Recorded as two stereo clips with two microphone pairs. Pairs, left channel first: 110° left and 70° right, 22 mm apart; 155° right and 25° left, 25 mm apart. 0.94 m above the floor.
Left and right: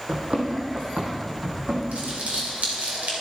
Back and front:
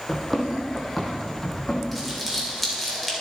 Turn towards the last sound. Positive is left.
turn(degrees=-70)